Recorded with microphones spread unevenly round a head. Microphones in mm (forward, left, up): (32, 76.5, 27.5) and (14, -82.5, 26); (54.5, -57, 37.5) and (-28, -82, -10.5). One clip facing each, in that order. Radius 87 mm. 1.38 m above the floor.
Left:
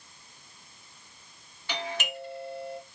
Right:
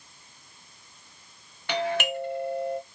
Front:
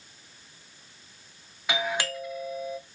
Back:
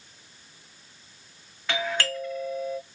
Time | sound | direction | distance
1.7 | a doorbell | 70° right | 1.9 m